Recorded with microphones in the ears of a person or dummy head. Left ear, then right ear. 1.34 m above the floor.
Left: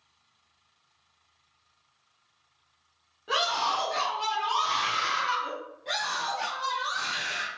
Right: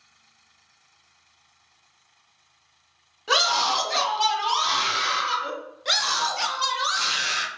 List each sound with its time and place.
3.3 s a scream: 60° right (ahead or behind), 0.8 m; by 5.5 s 15° right (ahead or behind), 1.3 m
5.8 s a scream: 55° right (ahead or behind), 1.1 m